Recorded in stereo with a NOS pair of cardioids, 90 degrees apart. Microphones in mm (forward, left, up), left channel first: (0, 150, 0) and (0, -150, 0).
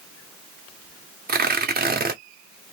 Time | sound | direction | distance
1.3 | tearing paper | 30° right | 1.7 m